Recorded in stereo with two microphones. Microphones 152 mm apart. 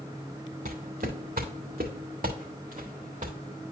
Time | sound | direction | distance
0.7 | footsteps | 65° right (ahead or behind) | 1.7 m